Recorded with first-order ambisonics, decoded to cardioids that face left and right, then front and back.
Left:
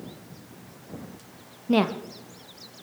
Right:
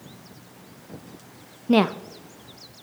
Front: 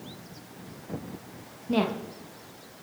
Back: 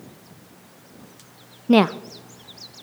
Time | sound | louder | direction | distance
1.7 | a woman speaking | right 3 dB, back 10 dB | 160° right | 0.6 m